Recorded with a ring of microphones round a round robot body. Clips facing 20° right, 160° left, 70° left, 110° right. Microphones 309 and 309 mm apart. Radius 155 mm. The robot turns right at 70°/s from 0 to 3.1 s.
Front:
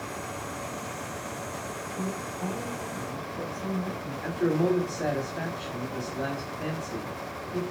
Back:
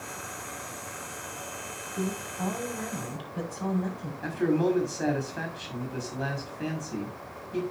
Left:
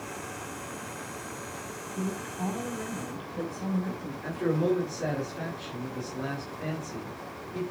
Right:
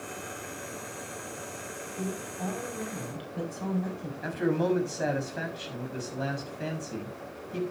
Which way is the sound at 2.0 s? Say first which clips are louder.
Back 3 dB, left 2 dB; 100° left.